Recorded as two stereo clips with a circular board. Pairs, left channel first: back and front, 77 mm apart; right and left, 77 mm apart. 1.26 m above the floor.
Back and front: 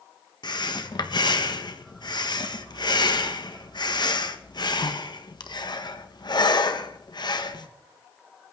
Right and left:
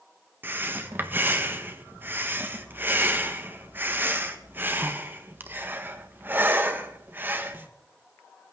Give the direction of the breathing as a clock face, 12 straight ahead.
7 o'clock.